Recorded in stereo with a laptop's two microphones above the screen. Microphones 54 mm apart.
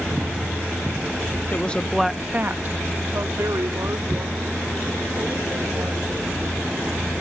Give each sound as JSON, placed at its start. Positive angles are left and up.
{"t": 1.5, "sound": "a woman speaking", "side_deg": 30}